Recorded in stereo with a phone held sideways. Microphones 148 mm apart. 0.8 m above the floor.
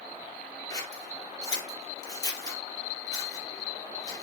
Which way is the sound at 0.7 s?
25° left (ahead or behind).